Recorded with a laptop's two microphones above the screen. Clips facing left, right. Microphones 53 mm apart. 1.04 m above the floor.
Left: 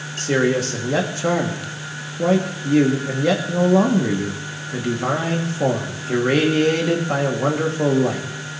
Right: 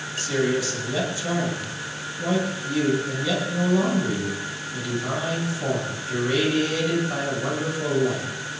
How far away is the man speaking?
About 1.9 m.